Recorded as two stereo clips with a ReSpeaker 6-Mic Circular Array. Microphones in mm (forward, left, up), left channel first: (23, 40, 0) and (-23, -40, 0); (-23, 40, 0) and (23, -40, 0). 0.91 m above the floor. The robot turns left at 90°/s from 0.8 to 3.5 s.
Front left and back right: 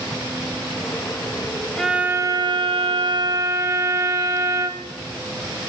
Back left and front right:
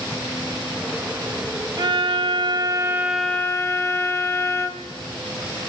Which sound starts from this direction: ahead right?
A violin, at 1.8 s.